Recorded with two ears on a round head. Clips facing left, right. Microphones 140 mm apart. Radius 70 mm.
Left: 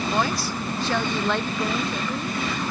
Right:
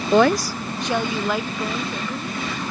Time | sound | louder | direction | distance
0.1 | a woman speaking | right 13 dB | 65° right (ahead or behind) | ?